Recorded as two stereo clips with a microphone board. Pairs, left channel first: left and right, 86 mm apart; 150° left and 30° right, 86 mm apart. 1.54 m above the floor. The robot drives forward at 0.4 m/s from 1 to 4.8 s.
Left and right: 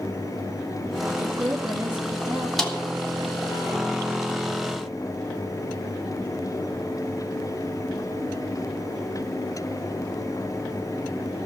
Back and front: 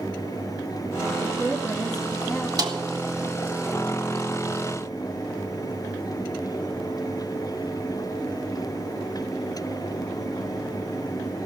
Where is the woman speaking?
125° right, 3 m; by 2.5 s 130° right, 3.5 m.